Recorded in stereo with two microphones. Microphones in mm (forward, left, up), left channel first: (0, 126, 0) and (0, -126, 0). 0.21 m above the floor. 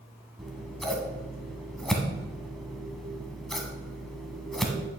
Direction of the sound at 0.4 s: Centre (ahead or behind).